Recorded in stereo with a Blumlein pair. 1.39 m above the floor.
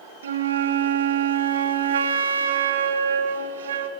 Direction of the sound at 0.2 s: 65° right.